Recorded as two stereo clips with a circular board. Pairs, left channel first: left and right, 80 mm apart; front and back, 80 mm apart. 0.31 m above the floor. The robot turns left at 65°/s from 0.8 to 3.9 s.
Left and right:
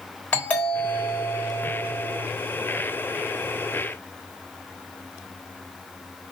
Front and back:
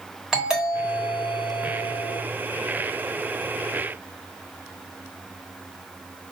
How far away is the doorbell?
About 1.4 m.